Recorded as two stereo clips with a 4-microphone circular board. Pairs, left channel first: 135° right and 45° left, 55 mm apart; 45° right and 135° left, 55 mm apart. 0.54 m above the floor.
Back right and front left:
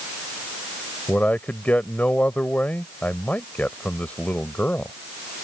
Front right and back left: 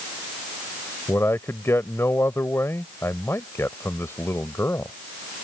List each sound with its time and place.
1.1 s a man speaking: 75° right